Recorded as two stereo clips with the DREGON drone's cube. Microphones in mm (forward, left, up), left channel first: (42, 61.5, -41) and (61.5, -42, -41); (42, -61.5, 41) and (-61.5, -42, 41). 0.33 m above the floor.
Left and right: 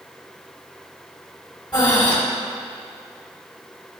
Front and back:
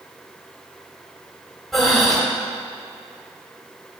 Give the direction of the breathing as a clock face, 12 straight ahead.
10 o'clock.